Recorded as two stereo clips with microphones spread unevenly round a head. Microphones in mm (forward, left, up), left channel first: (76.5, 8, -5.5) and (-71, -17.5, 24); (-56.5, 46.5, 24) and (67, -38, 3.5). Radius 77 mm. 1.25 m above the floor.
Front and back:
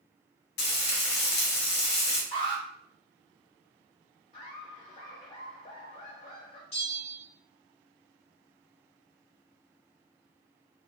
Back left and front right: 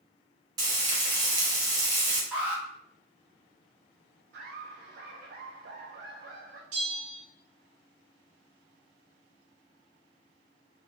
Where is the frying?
30° left, 0.8 m.